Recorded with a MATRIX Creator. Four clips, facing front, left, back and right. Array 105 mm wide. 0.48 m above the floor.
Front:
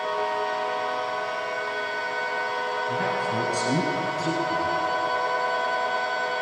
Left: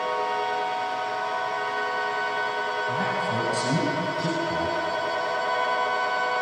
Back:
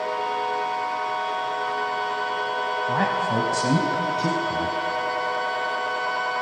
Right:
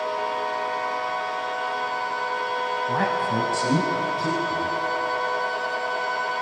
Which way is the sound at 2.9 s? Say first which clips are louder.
Right 3 dB, back 5 dB; 145° right.